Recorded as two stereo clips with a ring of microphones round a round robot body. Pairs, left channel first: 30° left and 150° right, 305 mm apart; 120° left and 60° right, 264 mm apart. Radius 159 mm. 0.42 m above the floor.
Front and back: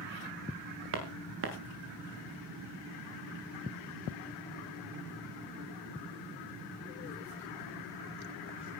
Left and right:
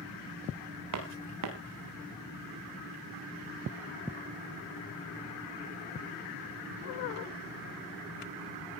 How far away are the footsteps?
About 4 m.